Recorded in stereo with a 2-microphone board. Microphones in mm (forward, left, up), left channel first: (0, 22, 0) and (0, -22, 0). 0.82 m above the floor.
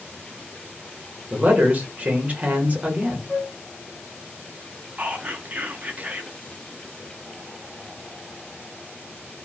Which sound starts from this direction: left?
A flute, at 3.3 s.